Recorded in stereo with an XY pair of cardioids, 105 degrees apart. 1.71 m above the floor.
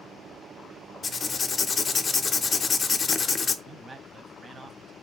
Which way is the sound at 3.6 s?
30° right.